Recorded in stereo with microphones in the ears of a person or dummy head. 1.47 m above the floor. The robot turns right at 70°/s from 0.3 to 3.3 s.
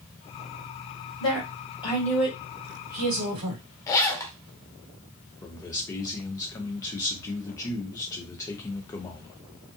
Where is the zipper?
15° left (ahead or behind), 0.6 m.